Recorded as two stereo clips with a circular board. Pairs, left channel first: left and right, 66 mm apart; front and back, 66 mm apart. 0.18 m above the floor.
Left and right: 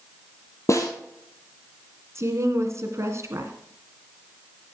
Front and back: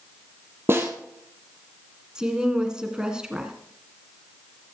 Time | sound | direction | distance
0.7 | a snare drum | 130° left | 2 m
2.1 | a woman speaking | 105° right | 2.0 m